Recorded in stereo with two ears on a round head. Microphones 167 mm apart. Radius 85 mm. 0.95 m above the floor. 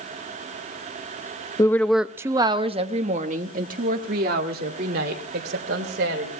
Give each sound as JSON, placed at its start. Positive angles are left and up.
{"t": 1.6, "sound": "a woman speaking", "side_deg": 20, "distance_m": 0.7}